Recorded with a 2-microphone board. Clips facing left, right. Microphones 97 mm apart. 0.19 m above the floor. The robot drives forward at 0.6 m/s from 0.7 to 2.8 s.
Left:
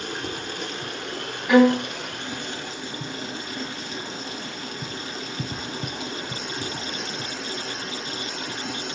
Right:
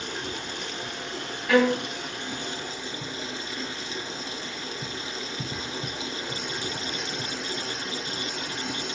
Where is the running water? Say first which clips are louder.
Left 3 dB; 55° left (ahead or behind), 1.3 m; by 9.0 s 45° left (ahead or behind), 1.5 m.